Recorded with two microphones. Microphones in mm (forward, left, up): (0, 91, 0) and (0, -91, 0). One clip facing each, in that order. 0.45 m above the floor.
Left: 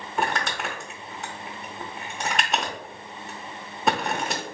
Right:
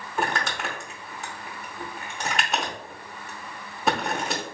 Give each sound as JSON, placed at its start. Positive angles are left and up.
{"t": 0.2, "sound": "crumpling", "side_deg": 0, "distance_m": 0.8}